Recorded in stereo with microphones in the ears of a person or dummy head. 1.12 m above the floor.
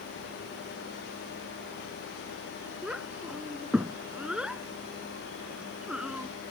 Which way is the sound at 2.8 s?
10° right (ahead or behind).